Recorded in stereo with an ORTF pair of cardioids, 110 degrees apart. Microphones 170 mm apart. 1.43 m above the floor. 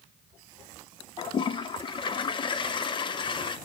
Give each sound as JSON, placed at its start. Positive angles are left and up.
{"t": 1.2, "sound": "a toilet flushing", "azimuth_deg": 30, "distance_m": 0.6}